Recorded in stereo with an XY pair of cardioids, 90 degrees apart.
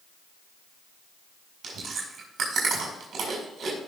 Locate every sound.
1.6 s chewing: 65° right, 6.5 m